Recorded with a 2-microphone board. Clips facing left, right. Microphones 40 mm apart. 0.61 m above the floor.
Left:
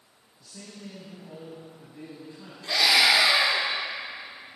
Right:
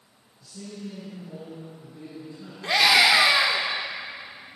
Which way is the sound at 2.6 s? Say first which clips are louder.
Right 3 dB; 50° right (ahead or behind).